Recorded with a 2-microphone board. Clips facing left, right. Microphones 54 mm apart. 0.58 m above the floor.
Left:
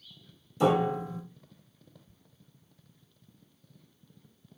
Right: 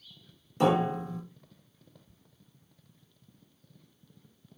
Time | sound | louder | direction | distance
0.6 | a piano | even | 50° right (ahead or behind) | 1.0 m